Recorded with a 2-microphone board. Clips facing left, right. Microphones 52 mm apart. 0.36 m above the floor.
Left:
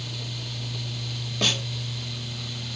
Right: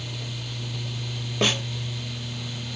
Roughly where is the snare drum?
Right.